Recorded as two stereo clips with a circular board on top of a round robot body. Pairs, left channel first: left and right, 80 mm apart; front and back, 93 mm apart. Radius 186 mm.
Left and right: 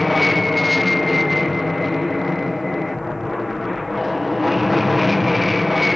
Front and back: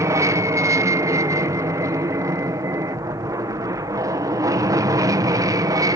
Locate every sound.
0.0 s an aircraft: straight behind